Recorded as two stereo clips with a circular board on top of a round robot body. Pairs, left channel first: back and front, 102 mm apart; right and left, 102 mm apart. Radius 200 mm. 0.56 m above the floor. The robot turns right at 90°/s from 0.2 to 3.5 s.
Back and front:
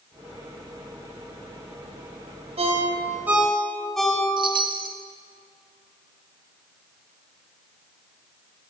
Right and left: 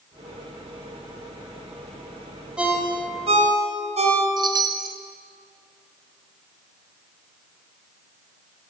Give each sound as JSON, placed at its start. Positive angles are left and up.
{"t": 2.6, "sound": "a ringtone", "azimuth_deg": 10, "distance_m": 3.0}
{"t": 4.4, "sound": "a chime", "azimuth_deg": 40, "distance_m": 0.7}